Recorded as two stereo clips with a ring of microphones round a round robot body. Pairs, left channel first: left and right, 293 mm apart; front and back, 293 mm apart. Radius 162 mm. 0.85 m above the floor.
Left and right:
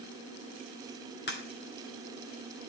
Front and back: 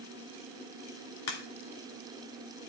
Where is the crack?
30° left, 2 m.